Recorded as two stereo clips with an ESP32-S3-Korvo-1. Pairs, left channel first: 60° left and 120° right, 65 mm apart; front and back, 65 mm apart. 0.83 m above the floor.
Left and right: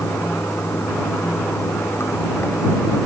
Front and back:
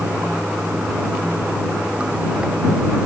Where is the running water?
110° left.